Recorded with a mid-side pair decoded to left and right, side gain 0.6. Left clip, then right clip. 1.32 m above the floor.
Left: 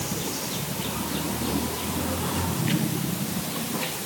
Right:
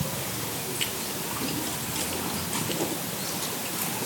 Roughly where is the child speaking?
No child speaking in this recording.